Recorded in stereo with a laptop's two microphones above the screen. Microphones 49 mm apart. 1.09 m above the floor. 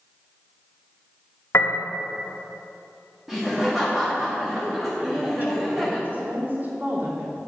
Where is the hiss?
No hiss in this recording.